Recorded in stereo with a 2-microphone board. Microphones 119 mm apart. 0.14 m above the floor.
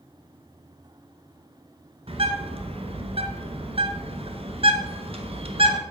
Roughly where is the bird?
Right.